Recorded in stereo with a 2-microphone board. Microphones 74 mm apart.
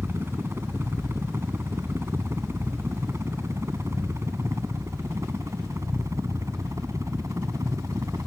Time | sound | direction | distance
0.0 | a helicopter | 35° right (ahead or behind) | ?